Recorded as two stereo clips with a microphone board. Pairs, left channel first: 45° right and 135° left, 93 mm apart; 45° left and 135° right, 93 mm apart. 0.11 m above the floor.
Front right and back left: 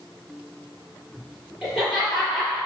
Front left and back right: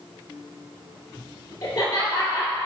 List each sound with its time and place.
1.6 s laughter: 50° left, 1.9 m